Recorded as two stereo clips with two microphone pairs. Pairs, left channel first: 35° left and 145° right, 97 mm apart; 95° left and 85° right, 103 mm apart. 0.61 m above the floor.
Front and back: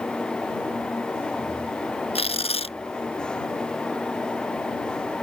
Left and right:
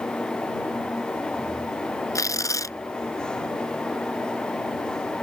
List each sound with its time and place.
2.1 s tearing paper: 35° left